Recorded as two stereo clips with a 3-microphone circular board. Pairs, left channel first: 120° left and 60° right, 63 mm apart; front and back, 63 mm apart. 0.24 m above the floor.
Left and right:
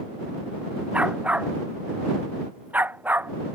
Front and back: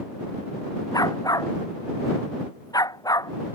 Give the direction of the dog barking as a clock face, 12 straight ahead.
12 o'clock.